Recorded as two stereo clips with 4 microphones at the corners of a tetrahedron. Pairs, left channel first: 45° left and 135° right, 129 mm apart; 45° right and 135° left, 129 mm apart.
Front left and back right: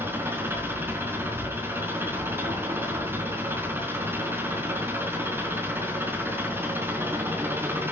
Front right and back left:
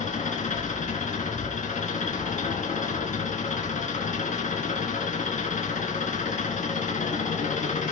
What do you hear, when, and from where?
0.0 s an engine running: 60° right, 3 m